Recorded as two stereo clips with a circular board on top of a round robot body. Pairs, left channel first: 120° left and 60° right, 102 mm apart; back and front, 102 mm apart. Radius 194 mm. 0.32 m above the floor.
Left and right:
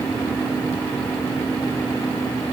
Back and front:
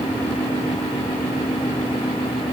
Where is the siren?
No siren in this recording.